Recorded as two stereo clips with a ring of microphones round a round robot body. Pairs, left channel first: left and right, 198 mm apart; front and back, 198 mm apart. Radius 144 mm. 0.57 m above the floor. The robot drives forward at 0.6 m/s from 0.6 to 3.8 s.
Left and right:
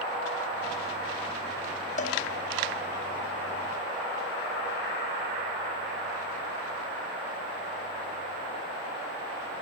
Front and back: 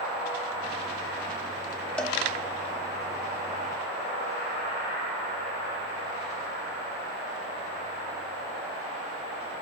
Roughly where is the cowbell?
Left.